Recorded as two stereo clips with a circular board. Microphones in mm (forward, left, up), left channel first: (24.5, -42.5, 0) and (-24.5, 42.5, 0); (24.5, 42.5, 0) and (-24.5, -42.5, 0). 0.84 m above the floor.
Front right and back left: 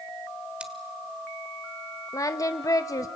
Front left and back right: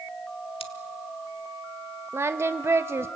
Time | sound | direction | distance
0.6 | scissors | 40° left | 1.4 m
2.1 | singing | 75° right | 0.9 m